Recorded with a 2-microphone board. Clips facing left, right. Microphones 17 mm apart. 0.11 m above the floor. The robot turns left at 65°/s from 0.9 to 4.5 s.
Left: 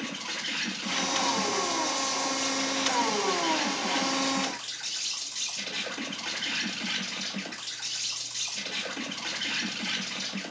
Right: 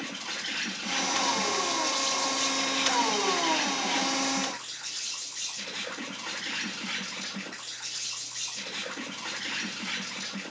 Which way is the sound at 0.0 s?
10° left.